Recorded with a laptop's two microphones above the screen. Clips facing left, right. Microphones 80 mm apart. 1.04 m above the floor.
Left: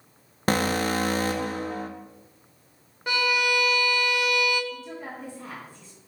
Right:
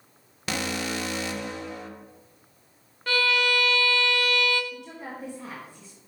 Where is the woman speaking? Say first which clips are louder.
Left 1 dB; 15° right (ahead or behind), 1.0 m.